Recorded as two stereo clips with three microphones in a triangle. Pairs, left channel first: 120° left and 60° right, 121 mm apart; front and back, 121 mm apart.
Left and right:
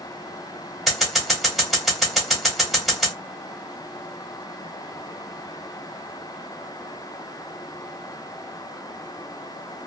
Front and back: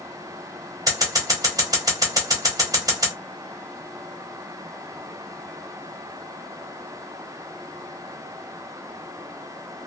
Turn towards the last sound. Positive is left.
turn(degrees=-150)